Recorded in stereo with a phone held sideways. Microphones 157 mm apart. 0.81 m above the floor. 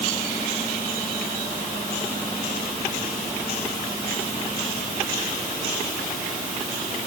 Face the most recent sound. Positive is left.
No sound to turn to.